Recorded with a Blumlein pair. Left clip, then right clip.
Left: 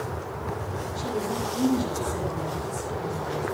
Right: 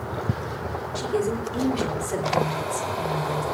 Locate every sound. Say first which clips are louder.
0.9 s a woman speaking: right 4 dB; 30° right, 3.5 m